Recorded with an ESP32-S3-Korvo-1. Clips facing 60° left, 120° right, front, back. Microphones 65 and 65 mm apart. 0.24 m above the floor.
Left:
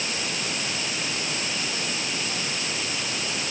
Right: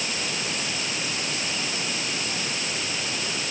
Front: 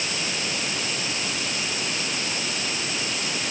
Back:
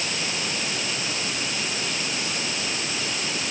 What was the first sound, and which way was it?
Only background noise.